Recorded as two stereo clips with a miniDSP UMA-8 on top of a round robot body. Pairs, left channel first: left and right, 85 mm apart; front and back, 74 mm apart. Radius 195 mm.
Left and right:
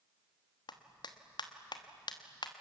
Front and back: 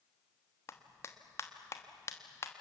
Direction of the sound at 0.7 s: 55° left.